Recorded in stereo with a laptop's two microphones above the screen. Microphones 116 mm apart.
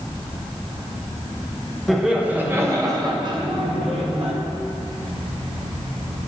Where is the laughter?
Centre (ahead or behind), 1.0 m; by 4.3 s 55° right (ahead or behind), 1.6 m.